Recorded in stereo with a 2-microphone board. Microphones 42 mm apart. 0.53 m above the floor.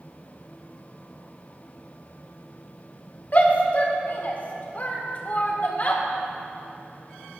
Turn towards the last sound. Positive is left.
turn(degrees=40)  # may be behind; listen again after turning